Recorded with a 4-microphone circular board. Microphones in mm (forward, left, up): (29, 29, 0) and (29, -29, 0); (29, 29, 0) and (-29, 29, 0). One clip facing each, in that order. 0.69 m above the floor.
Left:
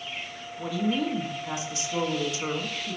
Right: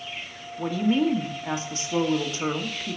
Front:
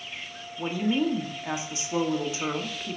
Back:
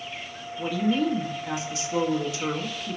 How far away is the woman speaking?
About 1.5 m.